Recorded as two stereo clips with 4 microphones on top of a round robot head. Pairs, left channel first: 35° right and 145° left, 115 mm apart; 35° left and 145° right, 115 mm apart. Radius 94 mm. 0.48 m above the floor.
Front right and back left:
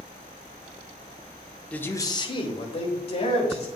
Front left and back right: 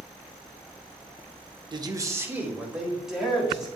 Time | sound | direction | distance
1.7 | a man speaking | 110° right | 1.1 m